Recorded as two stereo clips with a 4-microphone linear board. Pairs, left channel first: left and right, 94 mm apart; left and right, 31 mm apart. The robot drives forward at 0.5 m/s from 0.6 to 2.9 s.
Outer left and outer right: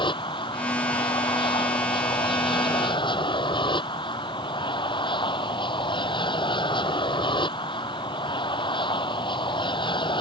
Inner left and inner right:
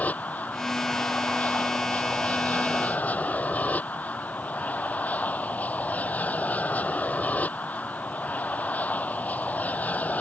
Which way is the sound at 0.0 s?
60° left (ahead or behind).